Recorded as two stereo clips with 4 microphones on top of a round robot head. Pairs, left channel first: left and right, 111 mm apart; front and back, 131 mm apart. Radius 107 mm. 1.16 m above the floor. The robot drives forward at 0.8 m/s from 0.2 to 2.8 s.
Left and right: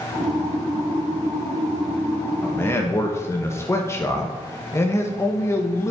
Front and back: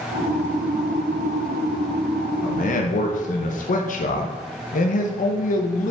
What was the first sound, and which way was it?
A man speaking, 15° left.